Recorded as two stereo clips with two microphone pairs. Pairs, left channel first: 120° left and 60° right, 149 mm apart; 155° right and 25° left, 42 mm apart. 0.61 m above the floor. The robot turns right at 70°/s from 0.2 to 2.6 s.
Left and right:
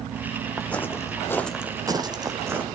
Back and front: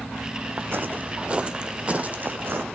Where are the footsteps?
30° left, 1.3 m; by 2.6 s 15° left, 1.4 m.